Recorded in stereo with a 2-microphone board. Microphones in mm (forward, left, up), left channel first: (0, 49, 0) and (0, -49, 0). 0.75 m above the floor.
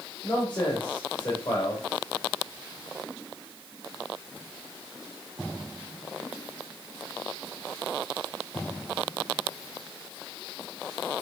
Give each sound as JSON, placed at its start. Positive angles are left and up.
{"t": 0.2, "sound": "a man speaking", "side_deg": 50, "distance_m": 2.0}